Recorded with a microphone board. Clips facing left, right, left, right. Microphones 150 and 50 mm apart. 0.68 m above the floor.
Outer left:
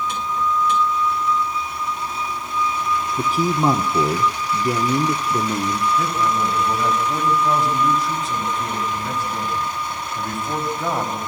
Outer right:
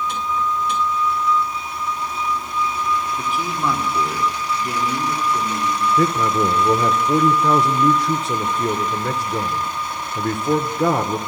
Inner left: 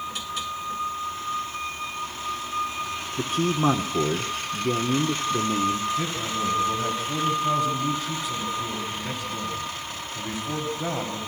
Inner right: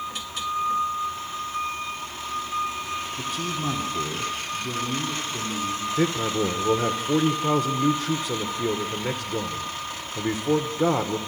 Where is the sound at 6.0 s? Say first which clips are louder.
Outer right 3 dB, inner right 4 dB; 70° right (ahead or behind), 2 m.